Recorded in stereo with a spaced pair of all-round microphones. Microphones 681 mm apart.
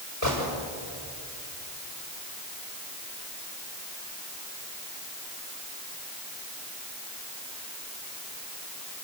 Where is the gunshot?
25° right (ahead or behind), 7 m.